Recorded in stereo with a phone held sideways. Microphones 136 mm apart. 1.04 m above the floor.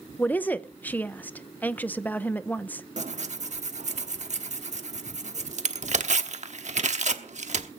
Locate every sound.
0.2 s a woman speaking: 10° left (ahead or behind), 0.6 m
3.0 s tearing paper: 60° right (ahead or behind), 1.1 m